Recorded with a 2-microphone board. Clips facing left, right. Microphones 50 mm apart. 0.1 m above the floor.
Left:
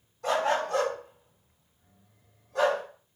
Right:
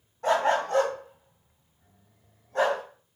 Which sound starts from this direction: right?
A dog barking, at 0.2 s.